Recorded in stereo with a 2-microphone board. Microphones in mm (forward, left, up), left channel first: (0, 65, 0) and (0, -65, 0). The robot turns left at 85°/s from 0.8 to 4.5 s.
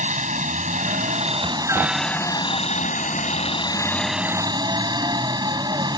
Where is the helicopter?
80° right; by 6.0 s 35° right.